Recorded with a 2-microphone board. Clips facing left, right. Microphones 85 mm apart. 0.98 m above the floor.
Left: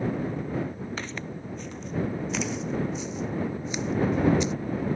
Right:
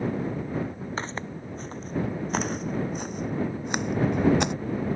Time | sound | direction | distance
1.0 | footsteps | 35° right (ahead or behind) | ?